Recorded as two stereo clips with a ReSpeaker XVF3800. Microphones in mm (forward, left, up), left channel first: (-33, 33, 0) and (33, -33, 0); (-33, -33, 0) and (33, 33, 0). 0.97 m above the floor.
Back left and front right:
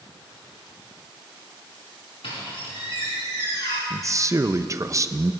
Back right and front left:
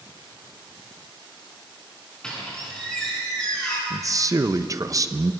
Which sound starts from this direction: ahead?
A man speaking, at 3.9 s.